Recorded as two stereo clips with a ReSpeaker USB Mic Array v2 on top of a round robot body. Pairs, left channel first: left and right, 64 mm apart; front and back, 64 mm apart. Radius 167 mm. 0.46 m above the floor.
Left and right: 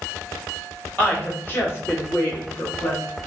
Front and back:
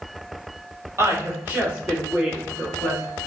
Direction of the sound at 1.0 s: 150° left.